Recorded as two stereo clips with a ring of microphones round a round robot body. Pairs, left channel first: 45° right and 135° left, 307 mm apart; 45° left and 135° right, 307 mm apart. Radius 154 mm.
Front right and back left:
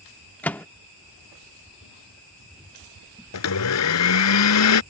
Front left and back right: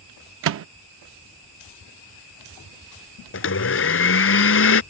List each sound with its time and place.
0.4 s a microwave: 130° right
3.3 s a blender: 5° right